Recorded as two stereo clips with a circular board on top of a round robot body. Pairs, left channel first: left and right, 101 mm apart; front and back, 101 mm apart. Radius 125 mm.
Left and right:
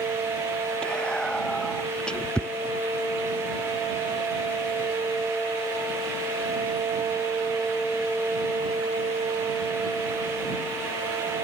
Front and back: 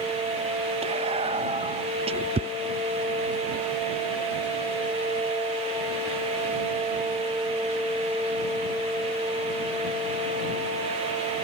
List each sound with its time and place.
0.8 s whispering: 170° left